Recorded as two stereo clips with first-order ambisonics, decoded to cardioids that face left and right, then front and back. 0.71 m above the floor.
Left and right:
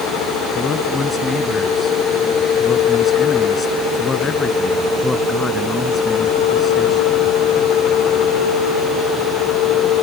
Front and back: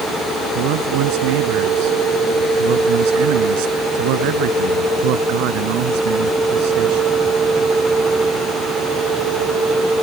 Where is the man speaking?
165° left.